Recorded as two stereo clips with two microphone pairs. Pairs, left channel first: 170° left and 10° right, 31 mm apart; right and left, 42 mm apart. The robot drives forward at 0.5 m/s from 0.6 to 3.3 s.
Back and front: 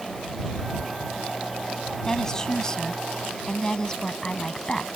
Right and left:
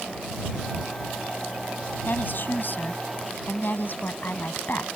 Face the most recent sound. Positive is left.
turn(degrees=-125)